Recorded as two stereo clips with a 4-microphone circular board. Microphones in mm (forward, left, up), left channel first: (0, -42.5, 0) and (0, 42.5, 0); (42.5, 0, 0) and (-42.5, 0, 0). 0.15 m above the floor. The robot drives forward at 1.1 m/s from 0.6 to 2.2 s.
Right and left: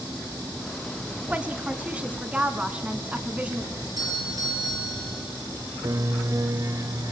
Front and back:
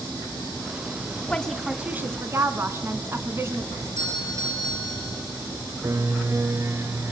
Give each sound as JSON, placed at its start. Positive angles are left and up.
{"t": 1.3, "sound": "a woman speaking", "azimuth_deg": 50, "distance_m": 1.3}
{"t": 3.8, "sound": "a doorbell", "azimuth_deg": 130, "distance_m": 4.0}
{"t": 5.8, "sound": "a piano", "azimuth_deg": 130, "distance_m": 0.7}